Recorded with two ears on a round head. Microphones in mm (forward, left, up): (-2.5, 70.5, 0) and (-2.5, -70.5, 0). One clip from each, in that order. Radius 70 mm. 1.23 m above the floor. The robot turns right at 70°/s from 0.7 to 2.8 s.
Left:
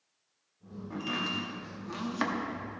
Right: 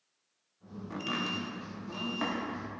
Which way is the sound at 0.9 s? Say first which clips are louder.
Left 1 dB; 30° right (ahead or behind).